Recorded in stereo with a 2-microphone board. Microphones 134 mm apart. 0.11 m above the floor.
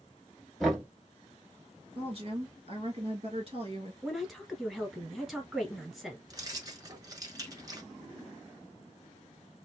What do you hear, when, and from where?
0.6 s knocking: centre (ahead or behind), 1.3 m
1.9 s a woman speaking: 45° right (ahead or behind), 1.8 m
4.0 s a woman speaking: centre (ahead or behind), 1.3 m
6.3 s keys jangling: 30° right (ahead or behind), 0.8 m